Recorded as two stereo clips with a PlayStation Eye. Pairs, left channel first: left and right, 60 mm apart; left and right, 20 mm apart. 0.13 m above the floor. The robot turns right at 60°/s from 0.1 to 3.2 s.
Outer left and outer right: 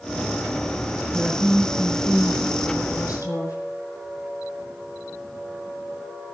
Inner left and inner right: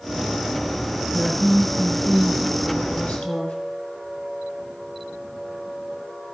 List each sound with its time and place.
1.1 s a woman speaking: 25° right, 4.5 m; by 3.6 s 100° left, 4.5 m